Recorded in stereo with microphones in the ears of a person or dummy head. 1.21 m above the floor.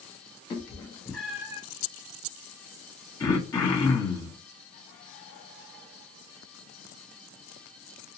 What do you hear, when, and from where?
0.5 s a cat meowing: 25° left (ahead or behind), 0.9 m; by 1.6 s 20° right (ahead or behind), 0.8 m
3.2 s throat clearing: 15° left (ahead or behind), 0.9 m